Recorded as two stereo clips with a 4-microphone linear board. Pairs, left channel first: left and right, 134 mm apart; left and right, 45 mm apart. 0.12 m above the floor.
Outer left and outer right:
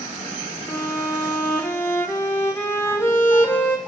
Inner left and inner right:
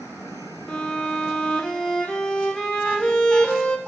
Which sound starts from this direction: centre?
A violin, at 0.7 s.